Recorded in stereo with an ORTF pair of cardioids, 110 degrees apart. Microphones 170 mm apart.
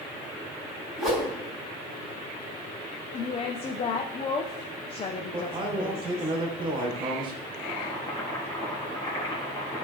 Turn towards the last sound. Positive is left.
turn(degrees=25)